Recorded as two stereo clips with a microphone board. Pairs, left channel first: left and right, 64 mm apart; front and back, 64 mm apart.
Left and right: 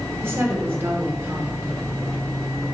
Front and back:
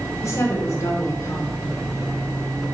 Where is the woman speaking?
40° right, 2 m.